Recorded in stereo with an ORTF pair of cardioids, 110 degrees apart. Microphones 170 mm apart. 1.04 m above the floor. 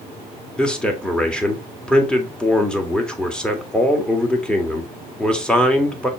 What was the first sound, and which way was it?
A man speaking, 5° left.